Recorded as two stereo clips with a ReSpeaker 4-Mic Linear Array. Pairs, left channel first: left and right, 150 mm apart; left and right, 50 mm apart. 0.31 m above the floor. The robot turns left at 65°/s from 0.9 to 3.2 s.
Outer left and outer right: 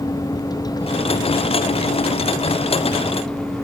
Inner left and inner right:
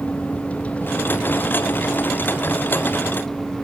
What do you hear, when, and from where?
0.0 s a vehicle: 155° left; by 3.6 s 5° left